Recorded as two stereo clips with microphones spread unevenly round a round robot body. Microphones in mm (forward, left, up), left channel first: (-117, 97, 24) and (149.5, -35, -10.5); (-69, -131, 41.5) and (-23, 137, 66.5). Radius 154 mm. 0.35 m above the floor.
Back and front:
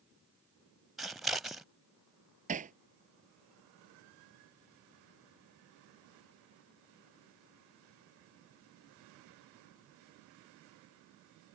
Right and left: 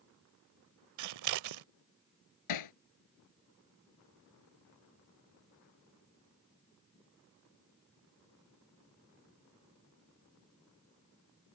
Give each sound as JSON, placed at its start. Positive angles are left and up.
{"t": 1.0, "sound": "scissors", "azimuth_deg": 60}
{"t": 2.5, "sound": "hammering", "azimuth_deg": -95}